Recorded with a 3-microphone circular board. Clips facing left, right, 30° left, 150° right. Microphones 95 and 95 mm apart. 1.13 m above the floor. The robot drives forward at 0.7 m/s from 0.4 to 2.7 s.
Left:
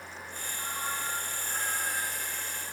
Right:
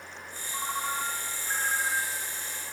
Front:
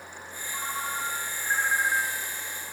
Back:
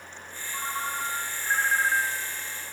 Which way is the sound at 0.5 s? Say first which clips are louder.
Right 5 dB, back 1 dB; 65° right.